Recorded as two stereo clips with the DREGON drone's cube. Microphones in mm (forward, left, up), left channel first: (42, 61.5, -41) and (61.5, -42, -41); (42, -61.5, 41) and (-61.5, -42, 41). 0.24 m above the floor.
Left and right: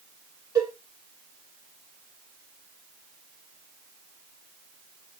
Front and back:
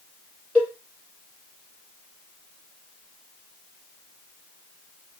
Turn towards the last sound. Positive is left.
turn(degrees=-80)